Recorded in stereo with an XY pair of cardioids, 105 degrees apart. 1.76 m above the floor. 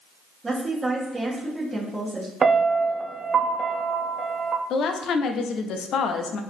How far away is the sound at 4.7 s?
About 0.7 m.